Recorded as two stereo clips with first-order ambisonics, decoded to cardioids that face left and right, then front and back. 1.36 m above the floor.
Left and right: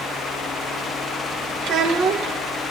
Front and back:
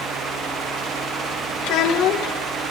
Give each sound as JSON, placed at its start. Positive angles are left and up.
{"t": 1.6, "sound": "a child speaking", "azimuth_deg": -40, "distance_m": 1.0}